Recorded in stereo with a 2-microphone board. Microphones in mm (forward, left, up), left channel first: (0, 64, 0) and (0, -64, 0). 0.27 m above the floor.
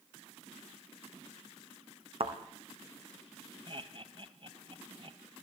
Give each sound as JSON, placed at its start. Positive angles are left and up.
{"t": 2.2, "sound": "a thud", "side_deg": -50, "distance_m": 3.0}
{"t": 3.7, "sound": "laughter", "side_deg": -45, "distance_m": 1.9}